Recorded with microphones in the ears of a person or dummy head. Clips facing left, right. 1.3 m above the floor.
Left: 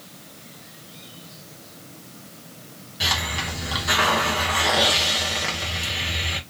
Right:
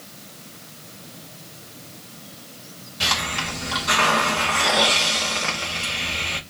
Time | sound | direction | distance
3.0 | a hiss | 10° left (ahead or behind) | 1.0 m